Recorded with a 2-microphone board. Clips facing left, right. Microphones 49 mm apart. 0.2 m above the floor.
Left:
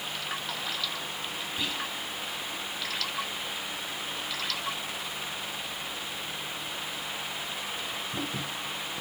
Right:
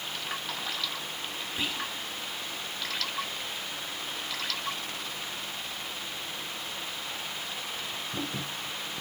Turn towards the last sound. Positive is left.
turn(degrees=-20)  # may be behind; listen again after turning